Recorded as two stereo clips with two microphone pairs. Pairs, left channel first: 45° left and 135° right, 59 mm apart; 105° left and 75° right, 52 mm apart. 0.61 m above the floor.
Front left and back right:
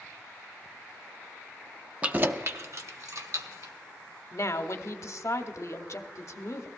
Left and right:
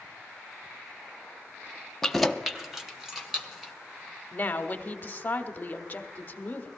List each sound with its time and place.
2.0 s keys jangling: 175° right, 0.5 m; by 3.7 s 155° right, 1.8 m
4.3 s a woman speaking: 55° left, 1.0 m